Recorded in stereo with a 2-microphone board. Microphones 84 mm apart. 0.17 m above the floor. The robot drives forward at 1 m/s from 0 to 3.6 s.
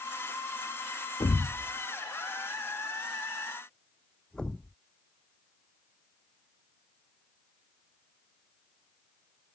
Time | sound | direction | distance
1.2 | a thud | 55° left (ahead or behind) | ?